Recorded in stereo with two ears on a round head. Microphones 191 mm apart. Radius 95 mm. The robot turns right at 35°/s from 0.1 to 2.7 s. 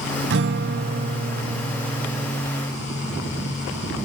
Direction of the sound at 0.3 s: 80° right.